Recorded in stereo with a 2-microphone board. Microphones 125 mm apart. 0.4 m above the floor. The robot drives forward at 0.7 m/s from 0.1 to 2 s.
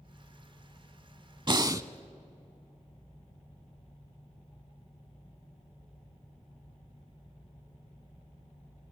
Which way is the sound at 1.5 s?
40° right (ahead or behind).